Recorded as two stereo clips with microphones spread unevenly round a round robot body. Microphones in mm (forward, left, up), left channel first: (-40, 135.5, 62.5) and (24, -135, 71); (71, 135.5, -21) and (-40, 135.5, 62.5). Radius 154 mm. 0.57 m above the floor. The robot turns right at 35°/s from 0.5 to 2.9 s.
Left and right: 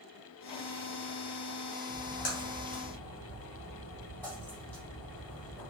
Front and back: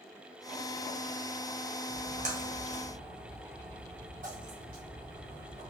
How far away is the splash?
About 1.5 m.